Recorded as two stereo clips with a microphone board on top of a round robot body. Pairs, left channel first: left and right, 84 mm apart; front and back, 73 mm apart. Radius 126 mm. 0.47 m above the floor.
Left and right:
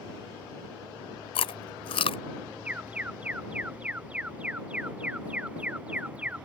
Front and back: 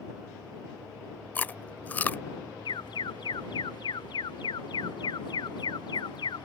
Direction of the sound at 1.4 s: 70° left.